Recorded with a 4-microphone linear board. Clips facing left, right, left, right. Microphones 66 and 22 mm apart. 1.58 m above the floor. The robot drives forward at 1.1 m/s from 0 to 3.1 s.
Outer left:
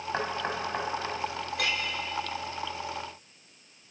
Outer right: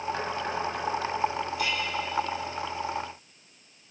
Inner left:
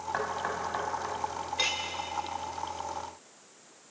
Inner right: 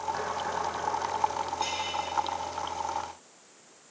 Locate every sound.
0.1 s knocking: 35° left (ahead or behind), 7 m; by 1.1 s 30° left (ahead or behind), 7.5 m
1.6 s a clink: 70° left (ahead or behind), 4.5 m; by 1.8 s 75° left (ahead or behind), 4.5 m